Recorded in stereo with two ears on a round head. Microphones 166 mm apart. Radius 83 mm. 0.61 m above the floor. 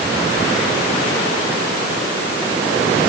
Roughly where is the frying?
No frying in this recording.